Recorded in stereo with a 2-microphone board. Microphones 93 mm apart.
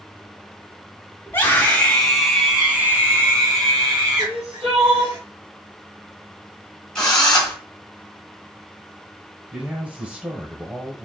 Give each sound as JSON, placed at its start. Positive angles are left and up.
{"t": 1.3, "sound": "a scream", "side_deg": 20, "distance_m": 1.6}
{"t": 4.2, "sound": "crying", "side_deg": -80, "distance_m": 2.5}
{"t": 7.0, "sound": "a drill", "side_deg": 10, "distance_m": 1.6}
{"t": 9.5, "sound": "a man speaking", "side_deg": -15, "distance_m": 1.0}